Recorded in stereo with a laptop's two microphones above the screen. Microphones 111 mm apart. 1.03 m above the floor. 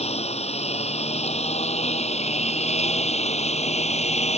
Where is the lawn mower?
75° left (ahead or behind); by 4.4 s 85° left.